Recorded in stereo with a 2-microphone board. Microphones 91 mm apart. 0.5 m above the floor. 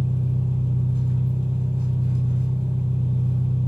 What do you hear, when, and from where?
0.0 s an engine running: 65° right (ahead or behind), 1.1 m